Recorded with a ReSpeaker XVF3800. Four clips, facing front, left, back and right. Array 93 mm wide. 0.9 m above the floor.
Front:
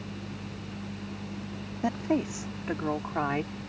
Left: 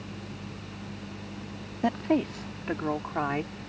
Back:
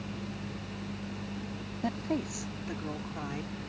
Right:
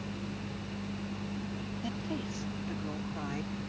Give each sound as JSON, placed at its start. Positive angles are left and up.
{"t": 1.8, "sound": "a woman speaking", "azimuth_deg": 75}